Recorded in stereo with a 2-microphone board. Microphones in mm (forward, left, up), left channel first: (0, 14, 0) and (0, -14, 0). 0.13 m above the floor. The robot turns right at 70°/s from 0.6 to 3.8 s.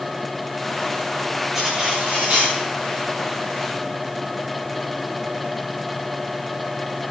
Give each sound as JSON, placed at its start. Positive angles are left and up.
{"t": 1.5, "sound": "cutlery clinking", "azimuth_deg": -165, "distance_m": 8.0}